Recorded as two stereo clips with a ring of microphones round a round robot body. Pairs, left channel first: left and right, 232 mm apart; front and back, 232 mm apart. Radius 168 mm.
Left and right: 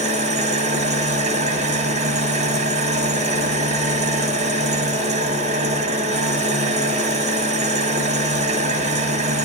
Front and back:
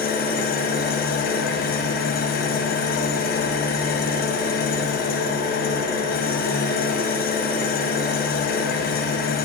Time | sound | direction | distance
0.0 | an engine running | 40° right | 0.9 m